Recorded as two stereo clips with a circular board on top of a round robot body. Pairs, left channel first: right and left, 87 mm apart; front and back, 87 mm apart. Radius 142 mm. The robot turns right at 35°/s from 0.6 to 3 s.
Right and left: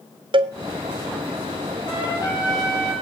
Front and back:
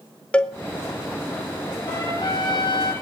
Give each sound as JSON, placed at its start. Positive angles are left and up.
{"t": 0.3, "sound": "a cowbell", "azimuth_deg": 80, "distance_m": 1.3}
{"t": 1.9, "sound": "a trumpet", "azimuth_deg": -55, "distance_m": 7.0}